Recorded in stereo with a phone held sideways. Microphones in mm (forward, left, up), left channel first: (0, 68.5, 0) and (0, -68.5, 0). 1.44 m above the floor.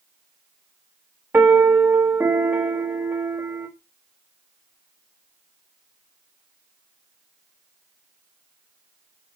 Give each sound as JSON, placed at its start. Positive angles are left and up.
{"t": 1.3, "sound": "a piano", "side_deg": -15, "distance_m": 0.9}